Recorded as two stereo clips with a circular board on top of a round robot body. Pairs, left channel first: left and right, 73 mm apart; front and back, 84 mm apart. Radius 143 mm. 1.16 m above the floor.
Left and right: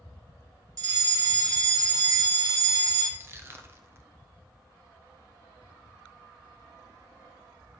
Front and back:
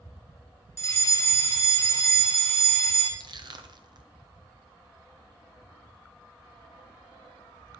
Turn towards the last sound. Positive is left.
turn(degrees=-145)